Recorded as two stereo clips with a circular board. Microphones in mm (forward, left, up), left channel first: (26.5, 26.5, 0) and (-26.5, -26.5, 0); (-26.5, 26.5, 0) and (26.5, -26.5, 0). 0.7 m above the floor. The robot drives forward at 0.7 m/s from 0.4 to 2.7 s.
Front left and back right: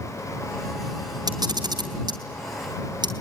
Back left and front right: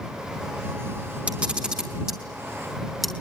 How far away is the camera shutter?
About 2.5 m.